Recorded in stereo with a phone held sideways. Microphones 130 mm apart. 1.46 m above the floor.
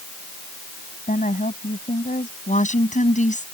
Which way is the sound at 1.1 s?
65° left (ahead or behind).